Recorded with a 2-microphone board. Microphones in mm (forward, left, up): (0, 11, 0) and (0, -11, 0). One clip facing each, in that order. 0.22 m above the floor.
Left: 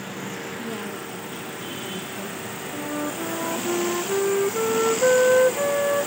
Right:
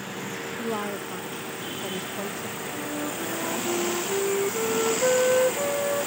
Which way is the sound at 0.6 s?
50° right (ahead or behind).